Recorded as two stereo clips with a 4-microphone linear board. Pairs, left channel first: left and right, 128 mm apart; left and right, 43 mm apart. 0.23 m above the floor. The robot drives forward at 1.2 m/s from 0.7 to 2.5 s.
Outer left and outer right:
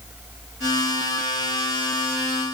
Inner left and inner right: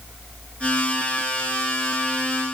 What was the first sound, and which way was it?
Only background noise.